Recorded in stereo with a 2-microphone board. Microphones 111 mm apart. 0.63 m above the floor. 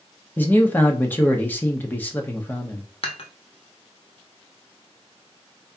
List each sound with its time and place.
0.4 s a man speaking: 15° left (ahead or behind), 0.9 m
3.0 s dishes clattering: 55° left (ahead or behind), 1.1 m